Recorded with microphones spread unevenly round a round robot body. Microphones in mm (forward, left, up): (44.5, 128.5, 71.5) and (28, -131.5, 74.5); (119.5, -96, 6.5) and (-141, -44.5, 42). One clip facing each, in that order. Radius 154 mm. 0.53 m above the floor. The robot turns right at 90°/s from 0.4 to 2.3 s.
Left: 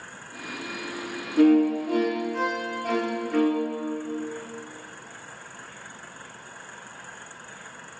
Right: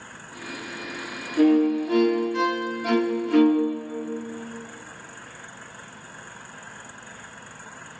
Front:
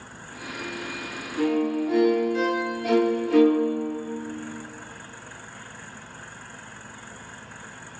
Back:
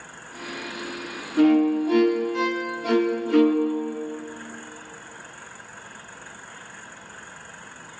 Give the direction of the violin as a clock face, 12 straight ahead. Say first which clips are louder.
Even, back 6 dB; 7 o'clock.